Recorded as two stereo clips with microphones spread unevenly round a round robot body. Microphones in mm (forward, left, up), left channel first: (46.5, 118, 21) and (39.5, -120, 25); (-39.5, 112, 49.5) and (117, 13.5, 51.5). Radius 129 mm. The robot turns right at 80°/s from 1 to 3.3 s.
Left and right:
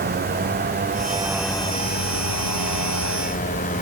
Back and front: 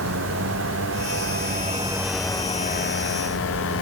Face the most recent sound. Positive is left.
turn(degrees=150)